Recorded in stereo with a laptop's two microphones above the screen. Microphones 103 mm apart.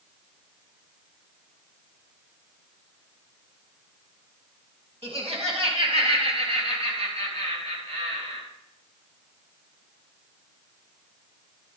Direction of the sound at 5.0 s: 70° right (ahead or behind).